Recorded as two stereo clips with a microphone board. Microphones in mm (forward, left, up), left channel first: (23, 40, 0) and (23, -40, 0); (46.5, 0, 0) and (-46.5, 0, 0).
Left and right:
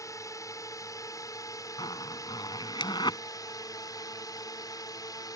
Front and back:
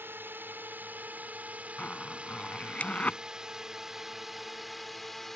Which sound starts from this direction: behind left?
A drone, at 0.0 s.